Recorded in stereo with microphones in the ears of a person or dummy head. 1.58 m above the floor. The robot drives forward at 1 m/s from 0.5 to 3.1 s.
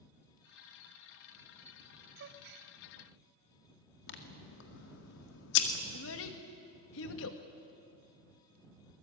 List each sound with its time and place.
2.2 s a gasp: 60° right (ahead or behind), 1.6 m
4.1 s scissors: 65° left (ahead or behind), 2 m
5.9 s a child speaking: 70° left (ahead or behind), 1.9 m